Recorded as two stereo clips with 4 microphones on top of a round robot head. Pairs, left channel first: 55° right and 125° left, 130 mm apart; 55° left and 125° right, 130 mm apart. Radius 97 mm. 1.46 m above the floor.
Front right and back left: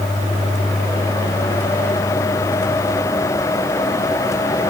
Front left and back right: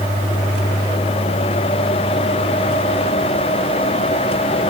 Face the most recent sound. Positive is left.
No sound to turn to.